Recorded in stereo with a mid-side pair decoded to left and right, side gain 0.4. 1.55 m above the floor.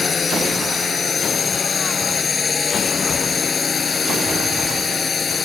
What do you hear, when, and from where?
0.0 s a drone: 40° left